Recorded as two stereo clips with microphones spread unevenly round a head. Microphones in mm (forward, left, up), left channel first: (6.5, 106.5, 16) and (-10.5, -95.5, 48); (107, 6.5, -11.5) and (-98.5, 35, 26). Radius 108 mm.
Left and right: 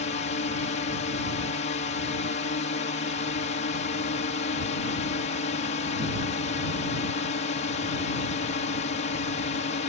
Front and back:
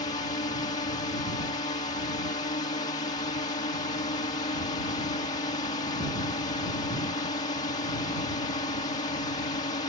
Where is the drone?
50° left.